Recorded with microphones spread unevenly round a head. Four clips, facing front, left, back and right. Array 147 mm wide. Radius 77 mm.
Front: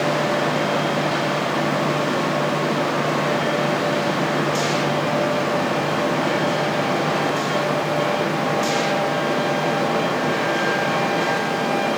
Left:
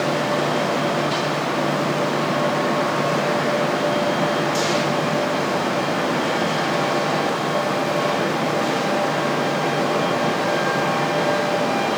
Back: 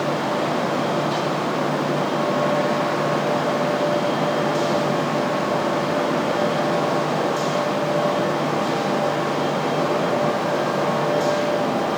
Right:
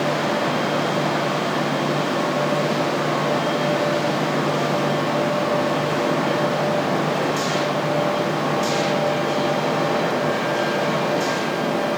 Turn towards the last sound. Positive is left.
No sound to turn to.